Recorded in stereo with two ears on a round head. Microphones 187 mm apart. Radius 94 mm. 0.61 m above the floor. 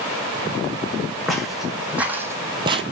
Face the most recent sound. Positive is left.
turn(degrees=-30)  # may be behind; listen again after turning